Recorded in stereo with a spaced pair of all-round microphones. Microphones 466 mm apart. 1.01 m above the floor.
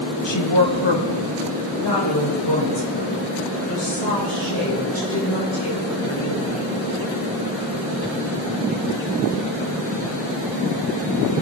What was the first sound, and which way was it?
A woman speaking, 65° left (ahead or behind).